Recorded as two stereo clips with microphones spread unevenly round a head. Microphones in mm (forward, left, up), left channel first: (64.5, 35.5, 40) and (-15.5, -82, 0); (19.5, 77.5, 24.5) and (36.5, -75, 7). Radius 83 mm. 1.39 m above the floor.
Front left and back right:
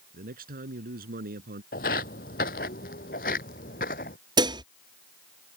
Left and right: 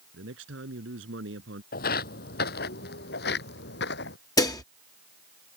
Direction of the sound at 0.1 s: 100° right.